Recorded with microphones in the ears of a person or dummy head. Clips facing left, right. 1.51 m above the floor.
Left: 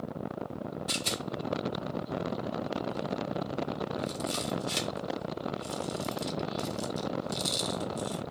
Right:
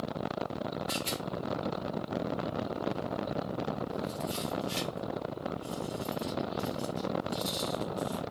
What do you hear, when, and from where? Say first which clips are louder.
0.9 s a rattle: even; 70° left (ahead or behind), 0.7 m